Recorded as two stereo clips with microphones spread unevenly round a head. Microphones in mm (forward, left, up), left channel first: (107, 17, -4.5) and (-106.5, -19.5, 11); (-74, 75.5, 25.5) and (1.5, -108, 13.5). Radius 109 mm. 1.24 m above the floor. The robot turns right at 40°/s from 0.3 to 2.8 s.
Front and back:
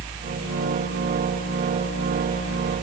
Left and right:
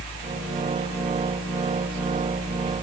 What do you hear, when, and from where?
Only background noise.